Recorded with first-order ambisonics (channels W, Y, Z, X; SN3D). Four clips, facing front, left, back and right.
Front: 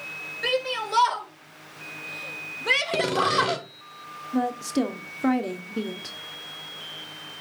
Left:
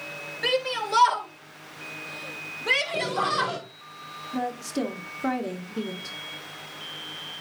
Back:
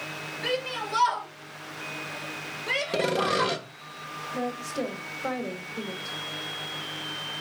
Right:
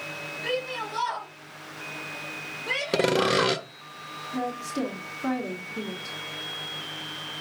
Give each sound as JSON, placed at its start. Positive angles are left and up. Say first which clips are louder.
{"t": 0.4, "sound": "a shout", "louder": "left 5 dB, front 4 dB", "azimuth_deg": 60, "distance_m": 3.5}
{"t": 2.9, "sound": "sawing", "louder": "right 3 dB, front 2 dB", "azimuth_deg": -85, "distance_m": 0.9}
{"t": 4.3, "sound": "a woman speaking", "louder": "left 1 dB, front 7 dB", "azimuth_deg": 15, "distance_m": 1.4}